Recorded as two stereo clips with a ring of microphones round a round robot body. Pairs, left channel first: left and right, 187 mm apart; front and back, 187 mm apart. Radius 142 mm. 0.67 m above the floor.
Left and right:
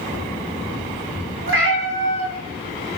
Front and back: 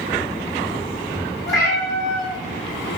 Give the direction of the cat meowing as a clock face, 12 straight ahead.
3 o'clock.